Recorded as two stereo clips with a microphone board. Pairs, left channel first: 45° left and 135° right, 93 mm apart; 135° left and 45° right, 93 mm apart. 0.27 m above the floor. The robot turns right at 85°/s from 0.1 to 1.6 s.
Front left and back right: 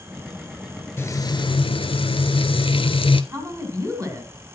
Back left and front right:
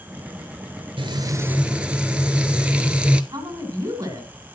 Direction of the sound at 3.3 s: 85° right.